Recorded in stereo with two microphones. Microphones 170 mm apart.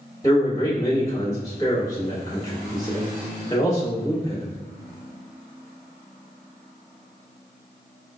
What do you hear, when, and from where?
0.2 s a man speaking: 20° left (ahead or behind), 2 m